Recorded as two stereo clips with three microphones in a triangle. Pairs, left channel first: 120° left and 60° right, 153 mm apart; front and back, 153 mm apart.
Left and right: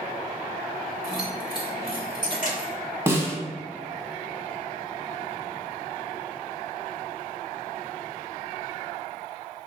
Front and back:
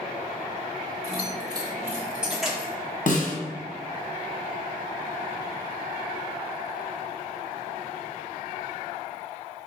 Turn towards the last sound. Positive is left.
turn(degrees=15)